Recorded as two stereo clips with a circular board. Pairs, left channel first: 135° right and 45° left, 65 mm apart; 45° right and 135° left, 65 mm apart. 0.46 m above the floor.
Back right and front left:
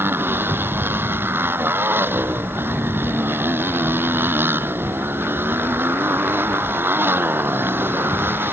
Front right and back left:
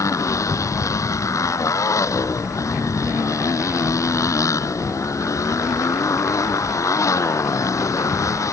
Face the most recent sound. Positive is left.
turn(degrees=-10)